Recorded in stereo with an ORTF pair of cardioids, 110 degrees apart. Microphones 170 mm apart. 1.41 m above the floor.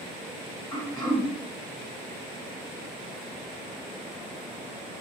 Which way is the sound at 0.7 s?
20° left.